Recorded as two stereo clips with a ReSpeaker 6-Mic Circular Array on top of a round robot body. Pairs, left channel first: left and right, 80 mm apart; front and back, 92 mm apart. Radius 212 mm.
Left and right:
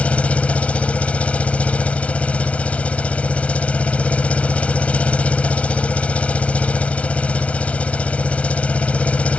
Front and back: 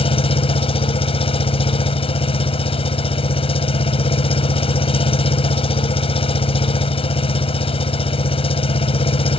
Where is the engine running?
15° left.